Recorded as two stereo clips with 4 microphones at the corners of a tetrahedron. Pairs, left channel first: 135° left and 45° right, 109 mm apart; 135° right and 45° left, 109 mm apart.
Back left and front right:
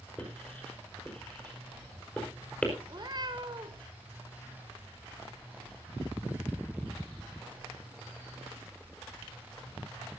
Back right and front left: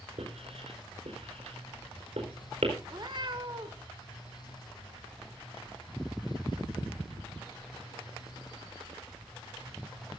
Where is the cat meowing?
Straight ahead, 2 m.